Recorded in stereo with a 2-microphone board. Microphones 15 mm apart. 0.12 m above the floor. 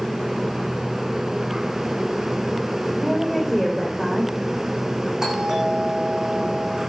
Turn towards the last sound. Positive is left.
turn(degrees=-30)  # may be behind; listen again after turning